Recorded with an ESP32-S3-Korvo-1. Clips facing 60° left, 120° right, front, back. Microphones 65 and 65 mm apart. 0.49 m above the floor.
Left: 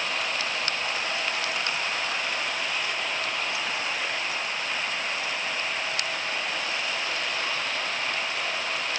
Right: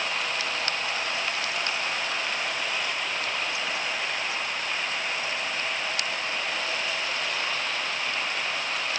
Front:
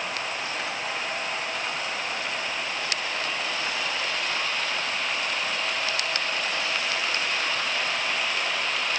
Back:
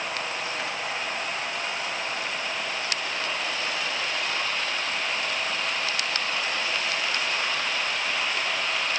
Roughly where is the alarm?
I don't hear an alarm.